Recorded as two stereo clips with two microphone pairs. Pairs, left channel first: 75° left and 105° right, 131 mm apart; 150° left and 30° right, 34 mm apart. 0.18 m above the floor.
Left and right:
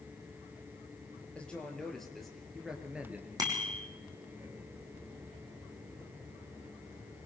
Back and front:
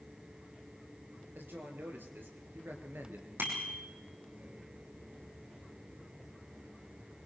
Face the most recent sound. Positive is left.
turn(degrees=-45)